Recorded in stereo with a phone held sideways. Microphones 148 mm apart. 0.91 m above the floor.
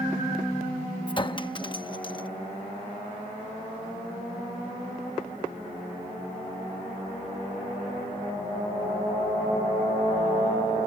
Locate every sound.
1.1 s a clink: 35° left (ahead or behind)